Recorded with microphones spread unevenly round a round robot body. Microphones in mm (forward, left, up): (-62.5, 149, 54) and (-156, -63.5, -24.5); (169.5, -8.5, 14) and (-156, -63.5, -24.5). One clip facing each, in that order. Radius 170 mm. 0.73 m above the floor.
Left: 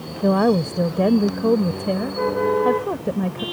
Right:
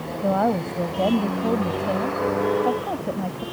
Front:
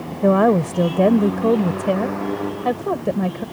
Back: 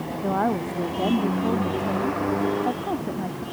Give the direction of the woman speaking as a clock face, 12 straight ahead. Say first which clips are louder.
Left 6 dB, front 10 dB; 12 o'clock.